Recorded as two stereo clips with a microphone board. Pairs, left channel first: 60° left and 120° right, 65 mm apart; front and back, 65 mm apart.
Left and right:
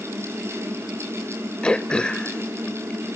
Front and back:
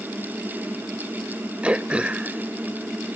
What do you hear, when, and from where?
1.6 s throat clearing: 120° left, 0.7 m